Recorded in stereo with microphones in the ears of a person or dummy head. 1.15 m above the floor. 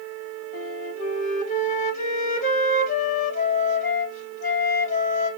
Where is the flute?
40° left (ahead or behind), 1.7 m.